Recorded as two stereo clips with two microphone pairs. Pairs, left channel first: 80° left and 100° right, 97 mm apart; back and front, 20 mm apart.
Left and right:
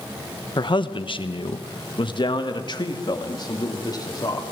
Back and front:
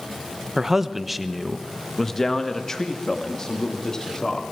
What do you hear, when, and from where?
0.6 s a man speaking: 60° left, 1.1 m; by 4.4 s 130° left, 3.5 m